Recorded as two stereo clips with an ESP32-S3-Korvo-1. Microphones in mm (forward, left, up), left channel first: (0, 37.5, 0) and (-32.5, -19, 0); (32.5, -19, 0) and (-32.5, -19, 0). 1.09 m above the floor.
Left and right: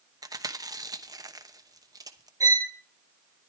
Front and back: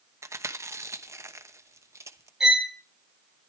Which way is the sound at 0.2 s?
135° right.